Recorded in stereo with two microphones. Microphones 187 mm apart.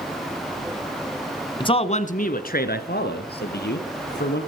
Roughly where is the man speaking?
Left.